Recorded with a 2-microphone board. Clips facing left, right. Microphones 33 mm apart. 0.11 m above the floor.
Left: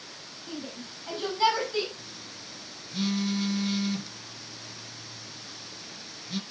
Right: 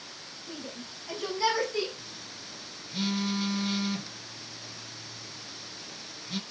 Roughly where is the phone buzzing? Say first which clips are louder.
Even; centre.